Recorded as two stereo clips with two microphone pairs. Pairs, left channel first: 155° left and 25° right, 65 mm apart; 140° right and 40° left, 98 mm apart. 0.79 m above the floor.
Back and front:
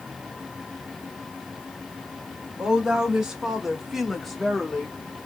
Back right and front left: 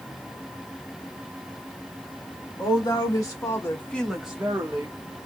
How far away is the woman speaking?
About 1.8 m.